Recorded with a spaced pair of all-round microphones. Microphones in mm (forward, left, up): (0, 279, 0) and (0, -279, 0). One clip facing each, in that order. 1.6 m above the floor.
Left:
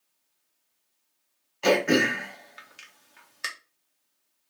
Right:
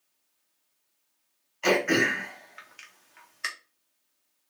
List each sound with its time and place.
1.6 s throat clearing: 55° left (ahead or behind), 0.7 m